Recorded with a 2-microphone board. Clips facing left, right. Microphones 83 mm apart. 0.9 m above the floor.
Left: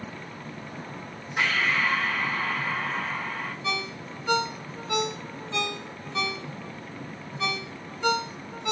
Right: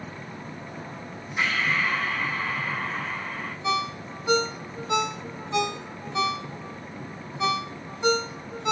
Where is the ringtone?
20° right (ahead or behind), 0.9 m.